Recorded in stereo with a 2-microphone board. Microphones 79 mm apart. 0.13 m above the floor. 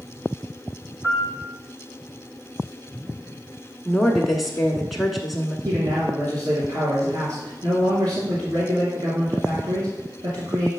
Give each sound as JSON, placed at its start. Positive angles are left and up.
{"t": 1.0, "sound": "a piano", "side_deg": -40, "distance_m": 1.9}
{"t": 3.9, "sound": "a woman speaking", "side_deg": 0, "distance_m": 1.1}
{"t": 5.7, "sound": "a man speaking", "side_deg": -50, "distance_m": 2.5}